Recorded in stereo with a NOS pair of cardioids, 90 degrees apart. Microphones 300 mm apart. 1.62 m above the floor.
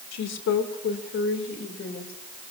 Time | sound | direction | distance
0.1 | a woman speaking | 65° left | 2.5 m